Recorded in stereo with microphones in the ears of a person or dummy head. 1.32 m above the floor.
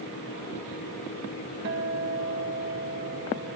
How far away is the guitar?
About 2 m.